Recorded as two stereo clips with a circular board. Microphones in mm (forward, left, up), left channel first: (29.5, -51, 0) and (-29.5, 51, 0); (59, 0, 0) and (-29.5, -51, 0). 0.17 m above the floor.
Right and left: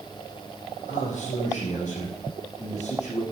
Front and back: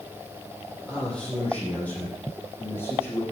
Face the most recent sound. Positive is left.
turn(degrees=-40)